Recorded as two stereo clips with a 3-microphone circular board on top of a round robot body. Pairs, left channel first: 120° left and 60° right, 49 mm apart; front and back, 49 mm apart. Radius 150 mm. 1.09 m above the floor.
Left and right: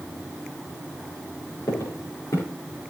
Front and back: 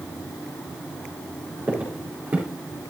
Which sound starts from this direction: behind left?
Footsteps, at 1.7 s.